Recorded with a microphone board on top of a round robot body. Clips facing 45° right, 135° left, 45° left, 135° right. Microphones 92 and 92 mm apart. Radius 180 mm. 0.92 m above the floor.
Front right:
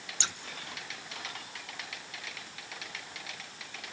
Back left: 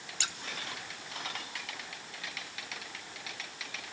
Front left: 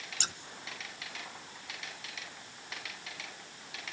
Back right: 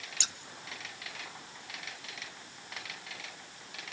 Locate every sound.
0.2 s scissors: 10° left, 1.1 m